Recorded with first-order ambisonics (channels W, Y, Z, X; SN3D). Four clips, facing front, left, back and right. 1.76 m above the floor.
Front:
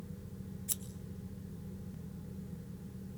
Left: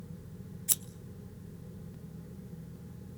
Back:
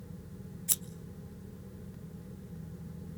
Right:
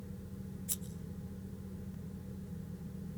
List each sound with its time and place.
0.7 s scissors: 120° left, 0.9 m